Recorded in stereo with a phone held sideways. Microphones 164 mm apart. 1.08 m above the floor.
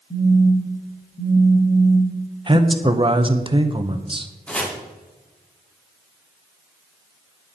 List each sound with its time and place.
0.1 s a phone buzzing: 50° left (ahead or behind), 3 m
2.5 s a man speaking: 30° right (ahead or behind), 0.7 m
4.5 s chopping: 5° left (ahead or behind), 1.3 m